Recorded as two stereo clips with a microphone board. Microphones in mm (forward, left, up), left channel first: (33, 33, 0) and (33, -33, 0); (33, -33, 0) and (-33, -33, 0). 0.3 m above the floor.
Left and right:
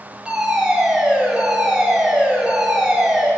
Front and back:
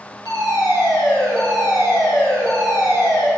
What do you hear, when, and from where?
0.2 s a fire alarm: 5° right, 7 m